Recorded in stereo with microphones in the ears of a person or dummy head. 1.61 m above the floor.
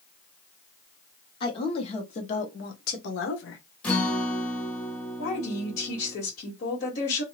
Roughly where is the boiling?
I don't hear boiling.